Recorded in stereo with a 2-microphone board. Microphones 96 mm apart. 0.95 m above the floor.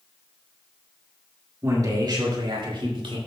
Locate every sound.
1.6 s a man speaking: 30° right (ahead or behind), 2 m; by 3.2 s 65° right (ahead or behind), 3.5 m